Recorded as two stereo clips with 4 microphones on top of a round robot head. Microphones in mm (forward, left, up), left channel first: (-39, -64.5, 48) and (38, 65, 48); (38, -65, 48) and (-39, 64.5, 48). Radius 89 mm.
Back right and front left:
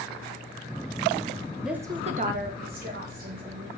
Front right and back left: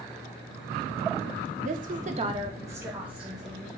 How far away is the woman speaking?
About 0.7 m.